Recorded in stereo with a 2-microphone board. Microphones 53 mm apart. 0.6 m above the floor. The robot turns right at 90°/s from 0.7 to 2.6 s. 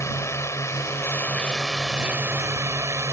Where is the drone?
85° left; by 3.1 s 100° right.